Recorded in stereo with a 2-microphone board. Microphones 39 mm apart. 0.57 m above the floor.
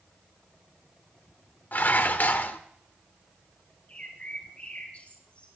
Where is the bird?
35° left (ahead or behind), 3.5 m.